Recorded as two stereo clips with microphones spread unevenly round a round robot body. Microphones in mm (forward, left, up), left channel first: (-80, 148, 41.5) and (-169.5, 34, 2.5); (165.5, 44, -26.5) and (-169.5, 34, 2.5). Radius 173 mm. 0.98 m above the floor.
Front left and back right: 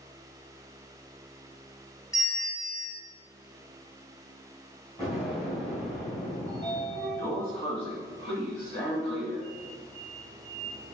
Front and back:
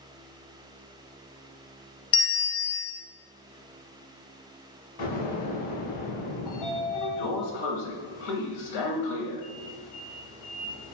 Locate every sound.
2.1 s a bell: 20° right, 1.1 m
5.0 s an explosion: 30° right, 3.5 m
6.5 s a sliding door: 5° right, 1.4 m